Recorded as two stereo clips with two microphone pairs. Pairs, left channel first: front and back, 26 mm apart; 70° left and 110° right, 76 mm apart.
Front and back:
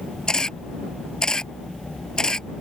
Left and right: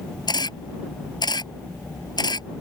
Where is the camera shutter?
60° left.